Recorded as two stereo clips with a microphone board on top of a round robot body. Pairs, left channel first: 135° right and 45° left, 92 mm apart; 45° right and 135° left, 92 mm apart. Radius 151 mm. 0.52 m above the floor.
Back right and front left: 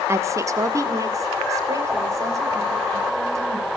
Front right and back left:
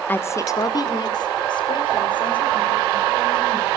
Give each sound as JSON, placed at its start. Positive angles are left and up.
{"t": 0.1, "sound": "a woman speaking", "azimuth_deg": 10, "distance_m": 1.2}